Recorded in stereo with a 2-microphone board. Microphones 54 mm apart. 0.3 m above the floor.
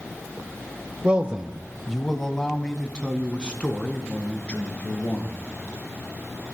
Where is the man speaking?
25° right (ahead or behind), 1.0 m; by 5.5 s 20° left (ahead or behind), 5 m.